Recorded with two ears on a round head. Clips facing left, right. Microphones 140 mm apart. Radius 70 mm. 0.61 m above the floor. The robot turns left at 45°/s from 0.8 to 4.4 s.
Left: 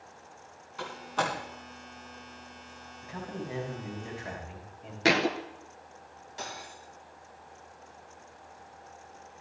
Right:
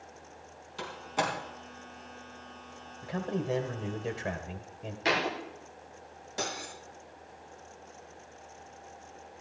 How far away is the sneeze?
No sneeze in this recording.